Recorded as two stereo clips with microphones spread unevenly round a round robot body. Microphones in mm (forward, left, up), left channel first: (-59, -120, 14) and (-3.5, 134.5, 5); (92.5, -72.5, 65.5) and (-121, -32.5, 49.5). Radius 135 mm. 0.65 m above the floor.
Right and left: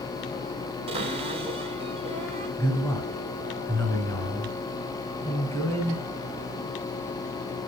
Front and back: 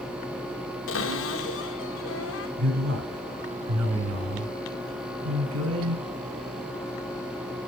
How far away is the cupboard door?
About 2.5 m.